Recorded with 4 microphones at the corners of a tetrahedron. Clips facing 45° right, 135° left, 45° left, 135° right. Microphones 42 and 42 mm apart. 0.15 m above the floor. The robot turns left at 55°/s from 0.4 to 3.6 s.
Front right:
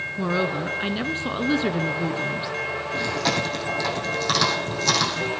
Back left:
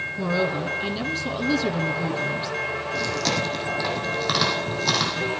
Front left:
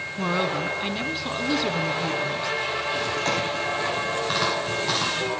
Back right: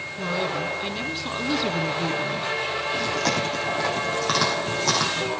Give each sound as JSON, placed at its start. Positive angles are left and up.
{"t": 0.2, "sound": "a woman speaking", "azimuth_deg": 5, "distance_m": 1.4}
{"t": 2.9, "sound": "chewing", "azimuth_deg": -105, "distance_m": 6.0}